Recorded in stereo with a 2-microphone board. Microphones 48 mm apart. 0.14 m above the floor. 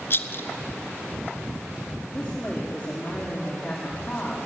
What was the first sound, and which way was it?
A rattle, 50° left (ahead or behind).